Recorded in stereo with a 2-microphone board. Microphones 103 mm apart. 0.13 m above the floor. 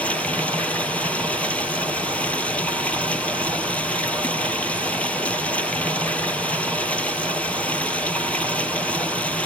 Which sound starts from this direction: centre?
Running water, at 0.0 s.